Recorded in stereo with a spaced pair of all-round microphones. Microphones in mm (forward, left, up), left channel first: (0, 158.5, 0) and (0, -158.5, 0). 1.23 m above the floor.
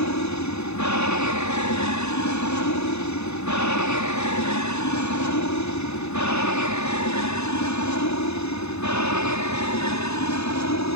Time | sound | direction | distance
0.0 | an aircraft | 65° left (ahead or behind) | ?